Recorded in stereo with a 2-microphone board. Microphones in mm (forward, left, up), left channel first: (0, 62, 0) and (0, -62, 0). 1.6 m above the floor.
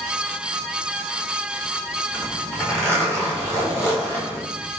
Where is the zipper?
15° left (ahead or behind), 5.5 m.